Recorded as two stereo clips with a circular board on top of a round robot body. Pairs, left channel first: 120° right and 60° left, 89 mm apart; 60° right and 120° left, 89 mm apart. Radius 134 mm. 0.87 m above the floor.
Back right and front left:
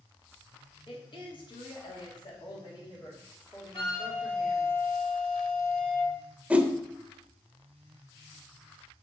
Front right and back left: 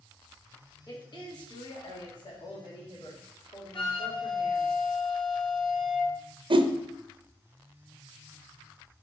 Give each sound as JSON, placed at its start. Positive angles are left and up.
{"t": 0.9, "sound": "a woman speaking", "azimuth_deg": -100, "distance_m": 2.0}
{"t": 3.7, "sound": "a flute", "azimuth_deg": -100, "distance_m": 1.1}
{"t": 6.5, "sound": "a whoosh", "azimuth_deg": 135, "distance_m": 0.6}